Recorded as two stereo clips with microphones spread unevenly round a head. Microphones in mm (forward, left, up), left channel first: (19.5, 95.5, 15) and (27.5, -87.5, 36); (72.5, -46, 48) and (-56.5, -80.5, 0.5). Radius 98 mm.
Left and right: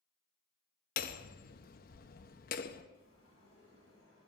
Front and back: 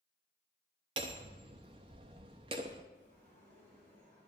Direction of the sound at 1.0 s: 120° left.